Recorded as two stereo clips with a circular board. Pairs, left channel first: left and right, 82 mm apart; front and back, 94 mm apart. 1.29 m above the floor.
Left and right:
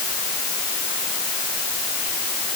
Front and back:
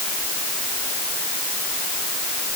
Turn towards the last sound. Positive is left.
No sound to turn to.